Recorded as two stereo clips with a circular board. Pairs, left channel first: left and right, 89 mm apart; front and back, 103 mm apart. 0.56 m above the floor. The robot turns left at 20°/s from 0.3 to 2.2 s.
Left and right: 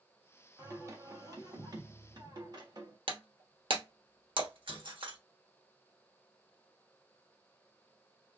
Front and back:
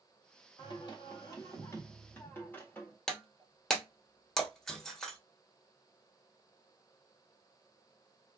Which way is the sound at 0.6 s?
35° right.